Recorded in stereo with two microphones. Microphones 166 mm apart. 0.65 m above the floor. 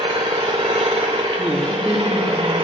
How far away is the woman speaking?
About 3 m.